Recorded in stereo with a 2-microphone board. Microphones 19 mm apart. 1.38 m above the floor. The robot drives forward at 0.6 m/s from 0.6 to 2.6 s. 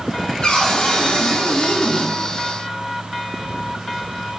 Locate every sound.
0.4 s a cupboard door: 40° left (ahead or behind), 3 m; by 2.1 s 50° left (ahead or behind), 2.5 m